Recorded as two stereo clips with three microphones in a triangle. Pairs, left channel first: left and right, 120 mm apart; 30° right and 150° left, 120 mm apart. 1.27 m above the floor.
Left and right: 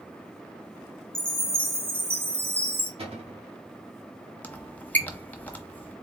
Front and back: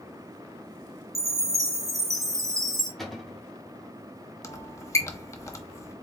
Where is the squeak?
20° left, 0.8 m.